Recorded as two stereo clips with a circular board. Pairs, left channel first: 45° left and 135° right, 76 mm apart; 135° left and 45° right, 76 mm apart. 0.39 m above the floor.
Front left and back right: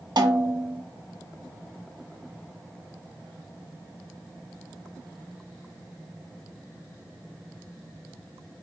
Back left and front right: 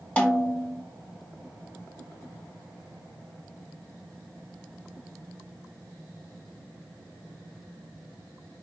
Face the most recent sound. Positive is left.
turn(degrees=-155)